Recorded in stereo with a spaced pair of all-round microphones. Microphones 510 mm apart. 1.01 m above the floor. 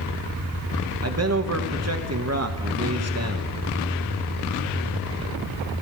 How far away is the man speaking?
About 1.2 m.